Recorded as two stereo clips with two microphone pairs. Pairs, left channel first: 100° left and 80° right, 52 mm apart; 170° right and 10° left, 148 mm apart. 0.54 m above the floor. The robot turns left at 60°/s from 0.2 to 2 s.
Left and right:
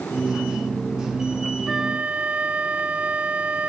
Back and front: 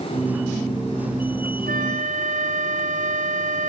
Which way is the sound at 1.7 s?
Straight ahead.